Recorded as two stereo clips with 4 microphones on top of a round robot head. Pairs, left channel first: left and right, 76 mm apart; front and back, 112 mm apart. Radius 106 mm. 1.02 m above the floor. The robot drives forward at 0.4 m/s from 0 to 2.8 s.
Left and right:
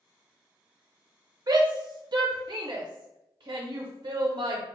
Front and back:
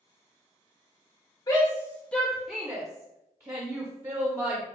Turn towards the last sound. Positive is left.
turn(degrees=-115)